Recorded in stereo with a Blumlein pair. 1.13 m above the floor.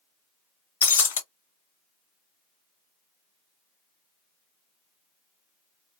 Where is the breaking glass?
65° left, 0.5 m.